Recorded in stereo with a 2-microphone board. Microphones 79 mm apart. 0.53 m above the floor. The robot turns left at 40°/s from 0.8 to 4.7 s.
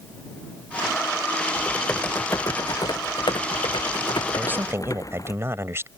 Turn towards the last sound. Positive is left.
turn(degrees=-30)  # may be behind; listen again after turning